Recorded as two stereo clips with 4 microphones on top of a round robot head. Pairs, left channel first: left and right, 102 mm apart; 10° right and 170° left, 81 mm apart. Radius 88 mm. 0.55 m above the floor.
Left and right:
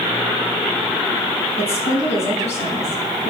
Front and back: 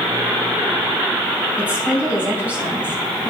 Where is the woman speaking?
100° left, 4 m.